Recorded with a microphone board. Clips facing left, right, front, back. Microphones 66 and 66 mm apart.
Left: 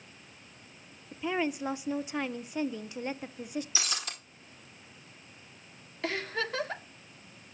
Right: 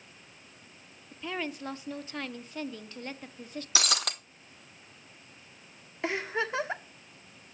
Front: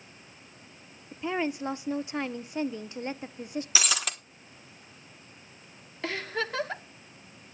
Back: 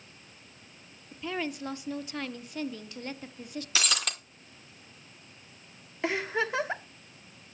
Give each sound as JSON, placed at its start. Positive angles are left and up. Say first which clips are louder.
{"t": 1.1, "sound": "a woman speaking", "louder": "left 5 dB, front 4 dB", "azimuth_deg": 35, "distance_m": 0.6}
{"t": 3.8, "sound": "breaking glass", "louder": "right 5 dB, back 1 dB", "azimuth_deg": -85, "distance_m": 1.4}
{"t": 6.0, "sound": "a giggle", "louder": "right 2 dB, back 3 dB", "azimuth_deg": -130, "distance_m": 1.3}